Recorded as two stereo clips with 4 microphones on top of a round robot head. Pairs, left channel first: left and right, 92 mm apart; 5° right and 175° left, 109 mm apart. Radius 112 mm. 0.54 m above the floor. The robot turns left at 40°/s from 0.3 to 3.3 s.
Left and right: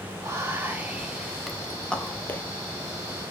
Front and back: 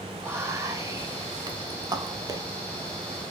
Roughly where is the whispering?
Behind right.